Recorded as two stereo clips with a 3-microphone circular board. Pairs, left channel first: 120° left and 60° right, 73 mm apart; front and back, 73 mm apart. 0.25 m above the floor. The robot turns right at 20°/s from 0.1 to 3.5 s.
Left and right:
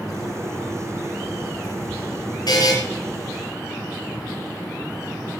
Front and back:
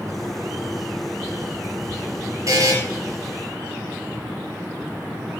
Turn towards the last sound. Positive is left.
turn(degrees=165)